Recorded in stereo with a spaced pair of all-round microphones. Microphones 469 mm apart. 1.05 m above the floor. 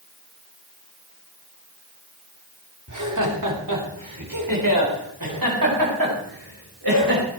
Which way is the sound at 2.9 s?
40° right (ahead or behind).